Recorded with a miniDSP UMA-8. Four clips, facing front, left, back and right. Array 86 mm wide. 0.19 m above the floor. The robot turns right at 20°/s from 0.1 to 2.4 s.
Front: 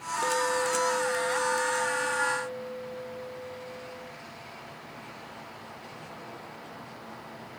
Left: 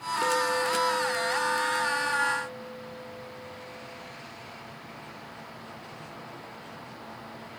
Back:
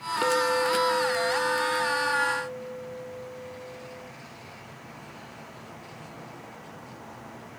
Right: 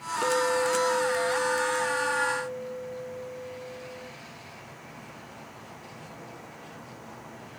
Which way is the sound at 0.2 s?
170° left.